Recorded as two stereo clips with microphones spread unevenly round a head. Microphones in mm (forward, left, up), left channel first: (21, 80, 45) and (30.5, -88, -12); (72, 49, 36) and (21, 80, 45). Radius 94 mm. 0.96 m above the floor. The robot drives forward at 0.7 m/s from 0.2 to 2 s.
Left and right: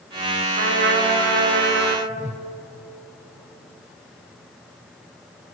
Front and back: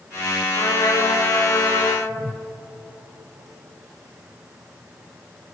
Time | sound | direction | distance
0.6 | a trumpet | 70° right | 4 m
2.1 | a whoosh | 150° right | 1.1 m